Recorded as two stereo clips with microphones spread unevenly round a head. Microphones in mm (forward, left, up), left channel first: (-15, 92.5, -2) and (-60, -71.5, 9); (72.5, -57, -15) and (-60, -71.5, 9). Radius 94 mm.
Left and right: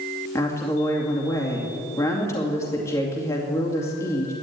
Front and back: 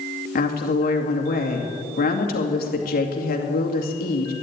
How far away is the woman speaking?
About 2.5 m.